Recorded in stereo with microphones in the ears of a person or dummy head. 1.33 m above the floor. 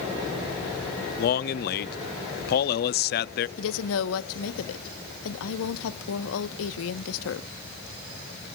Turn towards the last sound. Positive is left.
turn(degrees=80)